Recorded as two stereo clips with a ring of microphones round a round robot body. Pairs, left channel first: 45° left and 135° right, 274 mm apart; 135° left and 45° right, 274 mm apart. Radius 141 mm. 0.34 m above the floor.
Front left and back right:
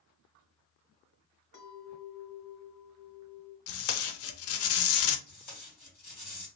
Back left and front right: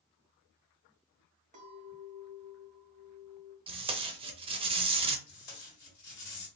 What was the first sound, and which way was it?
A clink, 15° left.